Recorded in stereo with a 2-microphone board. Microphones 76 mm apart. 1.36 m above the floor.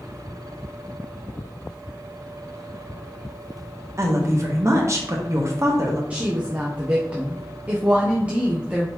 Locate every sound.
4.0 s a woman speaking: 40° right (ahead or behind), 1.0 m
6.1 s a woman speaking: 20° right (ahead or behind), 0.7 m